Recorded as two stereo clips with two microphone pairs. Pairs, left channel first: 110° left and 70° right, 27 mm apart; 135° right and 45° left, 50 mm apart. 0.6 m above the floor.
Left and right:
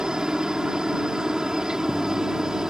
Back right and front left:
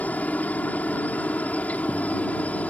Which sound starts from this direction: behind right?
A helicopter, at 0.0 s.